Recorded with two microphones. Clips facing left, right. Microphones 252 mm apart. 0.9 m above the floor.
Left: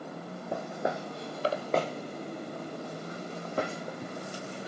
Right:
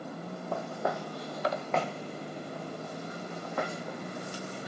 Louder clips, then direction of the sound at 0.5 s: Left 1 dB; 15° left (ahead or behind).